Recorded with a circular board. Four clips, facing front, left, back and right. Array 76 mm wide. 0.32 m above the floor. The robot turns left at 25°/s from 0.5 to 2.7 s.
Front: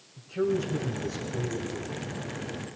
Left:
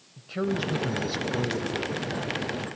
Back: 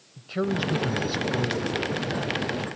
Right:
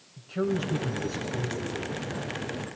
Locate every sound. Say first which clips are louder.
0.2 s a man speaking: even, even; 155° left, 1.5 m; by 1.9 s 120° left, 1.5 m